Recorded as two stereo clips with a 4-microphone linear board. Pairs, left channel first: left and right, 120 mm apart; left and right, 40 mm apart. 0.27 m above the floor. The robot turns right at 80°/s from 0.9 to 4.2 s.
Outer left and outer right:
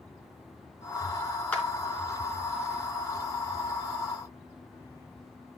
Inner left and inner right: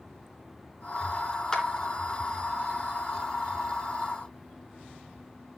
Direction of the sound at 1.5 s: 10° left (ahead or behind).